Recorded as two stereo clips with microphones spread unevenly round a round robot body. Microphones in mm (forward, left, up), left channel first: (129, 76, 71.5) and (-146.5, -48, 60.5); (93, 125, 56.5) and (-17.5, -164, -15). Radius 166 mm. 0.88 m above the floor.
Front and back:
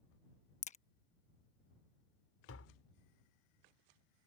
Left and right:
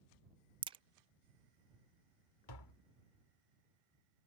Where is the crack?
45° right.